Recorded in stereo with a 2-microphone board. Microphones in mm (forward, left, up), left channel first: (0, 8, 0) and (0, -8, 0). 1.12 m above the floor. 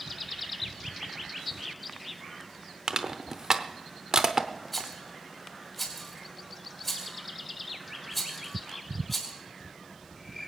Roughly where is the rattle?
Centre.